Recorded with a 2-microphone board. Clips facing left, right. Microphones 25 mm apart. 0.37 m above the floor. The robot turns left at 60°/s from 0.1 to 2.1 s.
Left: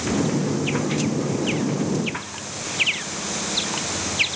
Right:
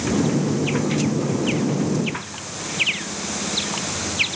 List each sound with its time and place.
Only background noise.